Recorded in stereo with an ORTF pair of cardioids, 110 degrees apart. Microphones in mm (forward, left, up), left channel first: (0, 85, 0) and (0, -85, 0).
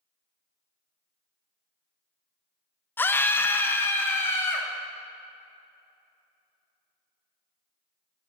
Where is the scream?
10° left, 0.6 m; by 4.7 s 15° left, 2.5 m.